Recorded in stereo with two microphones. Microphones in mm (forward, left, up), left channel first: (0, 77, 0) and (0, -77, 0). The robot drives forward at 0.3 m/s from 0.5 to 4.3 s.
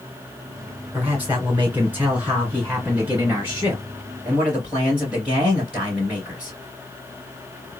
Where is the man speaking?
10° right (ahead or behind), 2 m.